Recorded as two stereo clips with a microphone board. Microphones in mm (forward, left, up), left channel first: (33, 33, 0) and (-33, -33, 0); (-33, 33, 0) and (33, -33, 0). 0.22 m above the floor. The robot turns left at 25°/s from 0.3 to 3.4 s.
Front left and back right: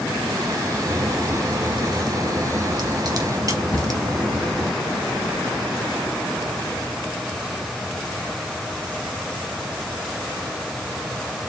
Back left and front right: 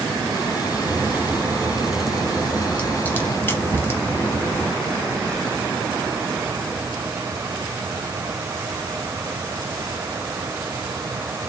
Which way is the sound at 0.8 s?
105° right.